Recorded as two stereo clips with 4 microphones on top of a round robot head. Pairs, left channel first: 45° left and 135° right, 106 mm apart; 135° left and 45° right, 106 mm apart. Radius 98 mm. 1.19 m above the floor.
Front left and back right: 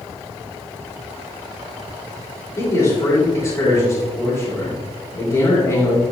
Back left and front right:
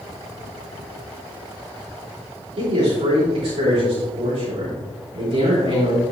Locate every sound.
2.6 s a man speaking: 15° right, 2.5 m